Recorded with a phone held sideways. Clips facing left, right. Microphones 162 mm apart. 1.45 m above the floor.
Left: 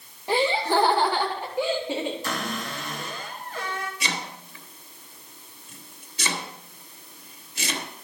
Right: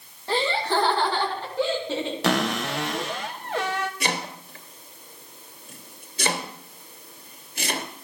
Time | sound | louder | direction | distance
0.3 | laughter | left 2 dB | 15° left (ahead or behind) | 3 m
2.2 | a cupboard door | right 7 dB | 75° right (ahead or behind) | 1.3 m
4.0 | chopping | right 4 dB | 55° right (ahead or behind) | 2 m